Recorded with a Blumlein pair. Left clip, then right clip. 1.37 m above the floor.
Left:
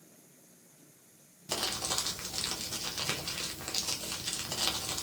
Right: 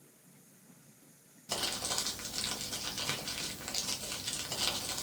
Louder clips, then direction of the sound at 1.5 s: Left 2 dB; 10° left.